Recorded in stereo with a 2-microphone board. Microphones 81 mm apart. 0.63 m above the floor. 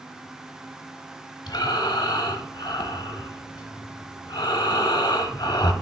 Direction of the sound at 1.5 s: 65° left (ahead or behind).